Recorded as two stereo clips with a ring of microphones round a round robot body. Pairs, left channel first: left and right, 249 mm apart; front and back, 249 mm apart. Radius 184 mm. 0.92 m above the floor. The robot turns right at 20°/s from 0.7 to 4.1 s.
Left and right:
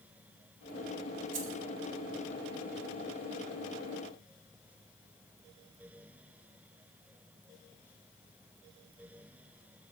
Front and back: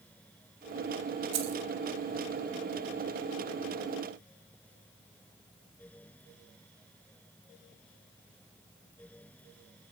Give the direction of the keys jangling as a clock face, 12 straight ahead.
5 o'clock.